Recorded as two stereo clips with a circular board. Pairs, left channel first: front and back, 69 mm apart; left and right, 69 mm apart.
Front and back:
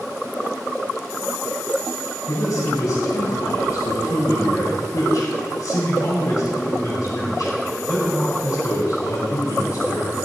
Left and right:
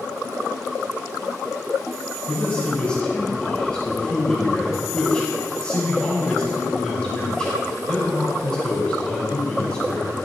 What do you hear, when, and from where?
2.3 s a man speaking: 15° left, 3.5 m